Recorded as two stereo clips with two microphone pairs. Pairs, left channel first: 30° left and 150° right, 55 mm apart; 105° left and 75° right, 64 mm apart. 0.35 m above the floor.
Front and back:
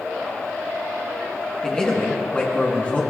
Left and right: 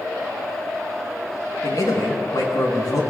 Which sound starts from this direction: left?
A man speaking, at 1.6 s.